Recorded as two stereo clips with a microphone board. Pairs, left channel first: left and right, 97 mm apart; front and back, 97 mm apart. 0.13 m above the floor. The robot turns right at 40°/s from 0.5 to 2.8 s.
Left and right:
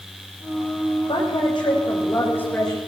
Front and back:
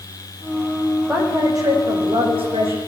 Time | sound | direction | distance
1.1 | a woman speaking | 110° left | 7.5 m